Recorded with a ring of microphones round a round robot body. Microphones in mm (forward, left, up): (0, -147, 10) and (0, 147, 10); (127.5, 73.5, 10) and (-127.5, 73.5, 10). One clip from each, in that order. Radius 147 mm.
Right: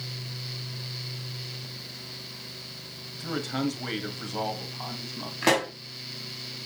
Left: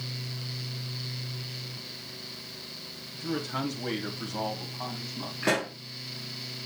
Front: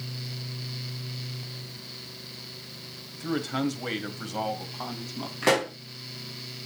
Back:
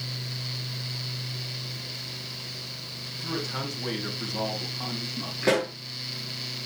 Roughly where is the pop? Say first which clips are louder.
Right 4 dB, front 1 dB; ahead right.